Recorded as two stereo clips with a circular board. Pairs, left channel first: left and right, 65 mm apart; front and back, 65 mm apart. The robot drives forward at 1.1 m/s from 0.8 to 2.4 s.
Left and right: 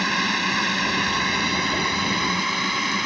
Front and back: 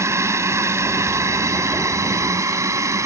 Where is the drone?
Straight behind.